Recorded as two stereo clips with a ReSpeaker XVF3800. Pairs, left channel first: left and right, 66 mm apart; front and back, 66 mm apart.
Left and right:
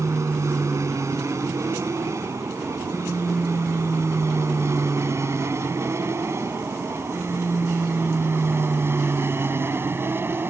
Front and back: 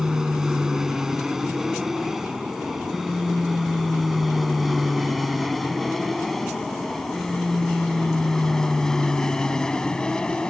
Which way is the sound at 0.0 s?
100° right.